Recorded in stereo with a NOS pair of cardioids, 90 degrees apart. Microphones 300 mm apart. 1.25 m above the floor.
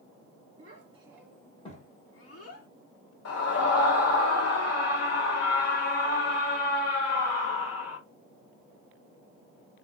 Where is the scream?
55° left, 1.4 m.